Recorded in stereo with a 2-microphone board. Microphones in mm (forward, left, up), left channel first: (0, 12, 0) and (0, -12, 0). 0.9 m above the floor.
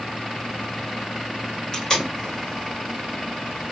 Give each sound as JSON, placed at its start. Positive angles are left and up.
{"t": 1.7, "sound": "tape being pulled", "side_deg": 25, "distance_m": 1.4}